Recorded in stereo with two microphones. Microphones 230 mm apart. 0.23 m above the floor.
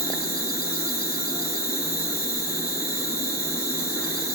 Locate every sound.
0.0 s an insect: 45° left (ahead or behind), 1.5 m